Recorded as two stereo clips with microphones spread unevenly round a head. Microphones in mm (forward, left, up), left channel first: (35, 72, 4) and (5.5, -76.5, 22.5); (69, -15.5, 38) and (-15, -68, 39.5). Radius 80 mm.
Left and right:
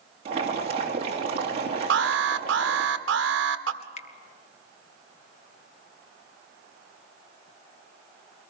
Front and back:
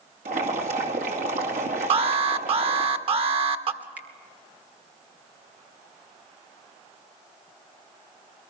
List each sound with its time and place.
0.2 s boiling: 160° right, 3 m
1.9 s an alarm: 120° right, 1.5 m
3.8 s dripping: 135° left, 1.1 m